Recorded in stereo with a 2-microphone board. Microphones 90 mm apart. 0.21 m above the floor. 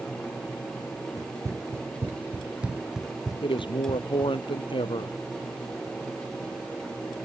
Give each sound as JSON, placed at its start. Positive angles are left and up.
{"t": 1.2, "sound": "running footsteps", "side_deg": -40}
{"t": 3.4, "sound": "a man speaking", "side_deg": 65}